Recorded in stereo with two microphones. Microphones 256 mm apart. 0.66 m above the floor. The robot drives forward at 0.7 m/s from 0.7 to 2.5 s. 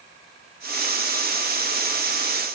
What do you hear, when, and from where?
Only background noise.